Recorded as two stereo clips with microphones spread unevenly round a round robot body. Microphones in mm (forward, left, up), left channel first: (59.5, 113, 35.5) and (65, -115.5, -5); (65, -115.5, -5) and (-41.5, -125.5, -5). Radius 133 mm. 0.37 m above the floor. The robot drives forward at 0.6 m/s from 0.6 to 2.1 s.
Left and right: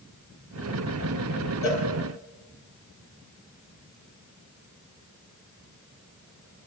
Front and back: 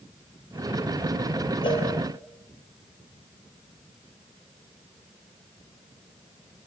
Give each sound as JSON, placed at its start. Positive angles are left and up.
{"t": 1.6, "sound": "a cowbell", "azimuth_deg": 70, "distance_m": 7.0}